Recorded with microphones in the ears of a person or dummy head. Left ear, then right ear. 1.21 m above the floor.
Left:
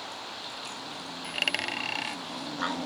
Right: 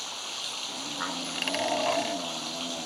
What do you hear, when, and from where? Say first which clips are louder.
0.0 s running water: right 3 dB; 50° right (ahead or behind)
1.2 s a dropped coin: left 2 dB; 5° right (ahead or behind)